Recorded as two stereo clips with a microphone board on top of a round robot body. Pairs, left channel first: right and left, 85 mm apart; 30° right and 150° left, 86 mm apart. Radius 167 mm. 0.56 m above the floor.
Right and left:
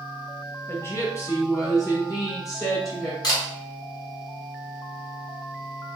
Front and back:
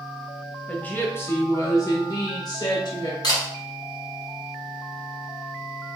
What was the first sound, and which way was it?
A woman speaking, 95° right.